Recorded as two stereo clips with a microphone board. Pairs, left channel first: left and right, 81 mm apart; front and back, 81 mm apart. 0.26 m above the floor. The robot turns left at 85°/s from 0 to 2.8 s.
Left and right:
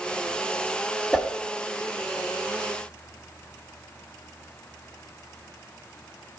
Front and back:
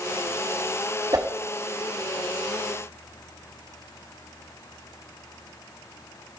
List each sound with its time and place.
1.1 s a whoosh: 170° left, 1.0 m; by 1.3 s 155° left, 1.0 m